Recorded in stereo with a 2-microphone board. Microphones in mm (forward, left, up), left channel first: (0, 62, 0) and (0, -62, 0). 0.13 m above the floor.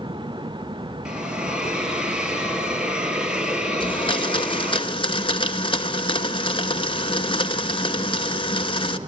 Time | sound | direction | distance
1.1 | a hiss | 5° right (ahead or behind) | 3 m
3.8 | a blender | 40° left (ahead or behind) | 1.2 m